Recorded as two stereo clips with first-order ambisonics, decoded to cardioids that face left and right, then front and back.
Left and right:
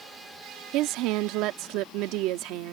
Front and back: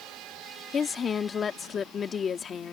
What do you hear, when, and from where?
0.7 s a woman speaking: 65° right